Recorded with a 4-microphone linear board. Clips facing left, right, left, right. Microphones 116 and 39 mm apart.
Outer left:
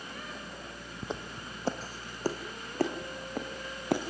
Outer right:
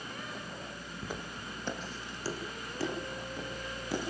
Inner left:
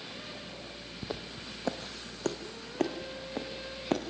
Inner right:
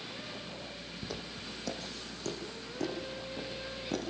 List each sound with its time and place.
1.0 s footsteps: 25° left (ahead or behind), 2.5 m; by 4.0 s 60° left (ahead or behind), 5 m